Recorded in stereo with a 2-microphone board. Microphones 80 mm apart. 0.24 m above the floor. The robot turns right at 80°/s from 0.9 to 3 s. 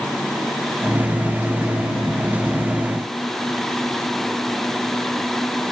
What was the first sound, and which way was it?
Only background noise.